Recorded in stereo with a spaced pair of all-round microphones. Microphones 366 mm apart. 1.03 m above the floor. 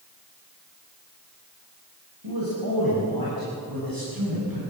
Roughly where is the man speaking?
Right.